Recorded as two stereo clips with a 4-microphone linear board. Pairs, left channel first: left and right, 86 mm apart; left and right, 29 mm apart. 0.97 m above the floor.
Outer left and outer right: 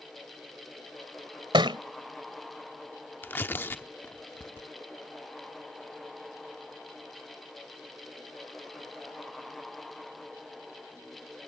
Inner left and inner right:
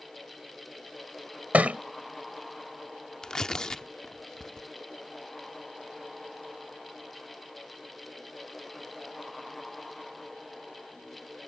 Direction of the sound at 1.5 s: 75° right (ahead or behind).